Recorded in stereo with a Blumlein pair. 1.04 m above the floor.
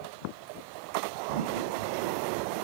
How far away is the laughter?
About 2.5 m.